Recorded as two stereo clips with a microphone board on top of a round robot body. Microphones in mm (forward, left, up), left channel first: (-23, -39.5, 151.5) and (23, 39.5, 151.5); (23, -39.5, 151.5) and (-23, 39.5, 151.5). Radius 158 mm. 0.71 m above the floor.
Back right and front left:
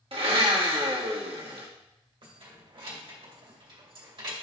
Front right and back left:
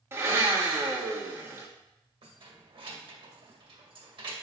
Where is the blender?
60° left, 1.7 m.